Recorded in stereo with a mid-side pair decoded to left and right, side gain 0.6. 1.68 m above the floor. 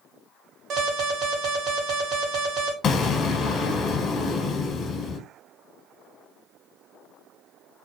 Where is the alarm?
60° right, 1.1 m.